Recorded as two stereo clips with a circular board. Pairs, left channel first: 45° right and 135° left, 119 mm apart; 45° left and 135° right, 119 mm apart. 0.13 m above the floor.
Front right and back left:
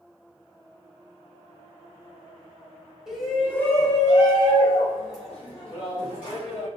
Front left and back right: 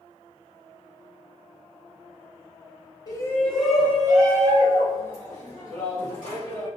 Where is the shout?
55° left, 1.2 m; by 6.7 s 100° right, 4 m.